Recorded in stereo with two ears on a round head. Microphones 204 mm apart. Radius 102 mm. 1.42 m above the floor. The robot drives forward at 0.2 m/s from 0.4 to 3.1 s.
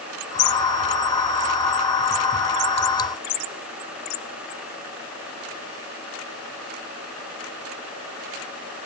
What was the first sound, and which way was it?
Only background noise.